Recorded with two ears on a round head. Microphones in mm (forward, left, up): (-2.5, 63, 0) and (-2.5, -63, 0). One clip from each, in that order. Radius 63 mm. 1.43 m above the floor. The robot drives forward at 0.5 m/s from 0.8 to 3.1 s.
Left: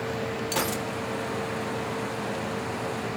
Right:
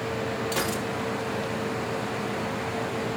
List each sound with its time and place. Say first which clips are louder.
0.5 s a gunshot: left 2 dB; 25° left (ahead or behind), 1.6 m